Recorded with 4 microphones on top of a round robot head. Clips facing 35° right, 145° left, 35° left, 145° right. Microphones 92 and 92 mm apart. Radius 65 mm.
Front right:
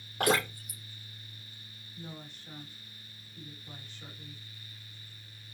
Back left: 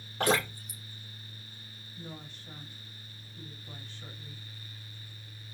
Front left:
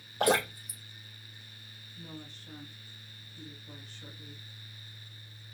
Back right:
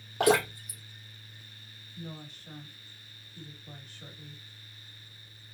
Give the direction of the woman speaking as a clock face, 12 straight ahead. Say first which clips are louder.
Even, back right 3 dB; 4 o'clock.